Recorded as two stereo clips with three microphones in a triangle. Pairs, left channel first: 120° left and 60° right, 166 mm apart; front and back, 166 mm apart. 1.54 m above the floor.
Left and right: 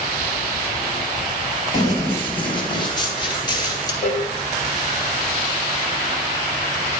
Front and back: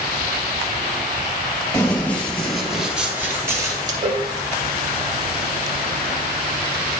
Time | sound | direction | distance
1.7 | running footsteps | 70° left | 2 m
4.0 | a cowbell | 130° left | 1.0 m